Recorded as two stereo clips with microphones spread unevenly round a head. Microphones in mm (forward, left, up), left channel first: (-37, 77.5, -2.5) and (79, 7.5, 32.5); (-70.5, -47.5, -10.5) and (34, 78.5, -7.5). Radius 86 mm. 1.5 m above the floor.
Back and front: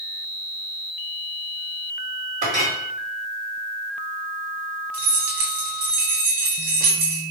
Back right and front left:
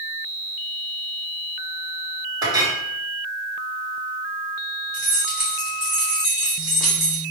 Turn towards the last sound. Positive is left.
turn(degrees=-35)